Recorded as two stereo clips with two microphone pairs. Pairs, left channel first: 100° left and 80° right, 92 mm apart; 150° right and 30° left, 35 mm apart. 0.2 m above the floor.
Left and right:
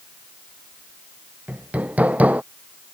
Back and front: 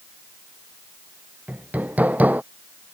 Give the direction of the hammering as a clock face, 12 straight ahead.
12 o'clock.